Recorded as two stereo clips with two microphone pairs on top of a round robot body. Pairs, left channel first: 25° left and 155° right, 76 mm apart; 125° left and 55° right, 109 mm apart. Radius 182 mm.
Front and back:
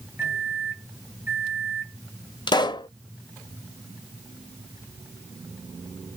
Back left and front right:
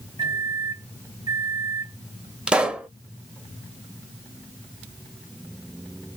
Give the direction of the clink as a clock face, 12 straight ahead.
I don't hear a clink.